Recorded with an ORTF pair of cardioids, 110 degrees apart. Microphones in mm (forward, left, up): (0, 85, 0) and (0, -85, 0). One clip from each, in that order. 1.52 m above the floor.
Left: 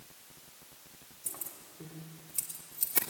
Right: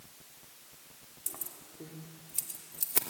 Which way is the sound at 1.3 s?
15° right.